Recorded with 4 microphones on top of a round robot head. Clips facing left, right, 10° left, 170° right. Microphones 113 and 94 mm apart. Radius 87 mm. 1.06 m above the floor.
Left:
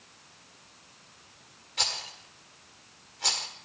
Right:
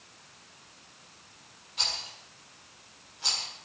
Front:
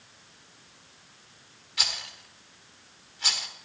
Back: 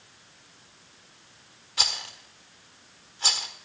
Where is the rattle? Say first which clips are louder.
Left 3 dB, back 3 dB; 140° left, 1.5 m.